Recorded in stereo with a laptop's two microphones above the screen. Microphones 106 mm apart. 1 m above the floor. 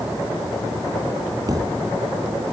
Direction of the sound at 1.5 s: 35° right (ahead or behind).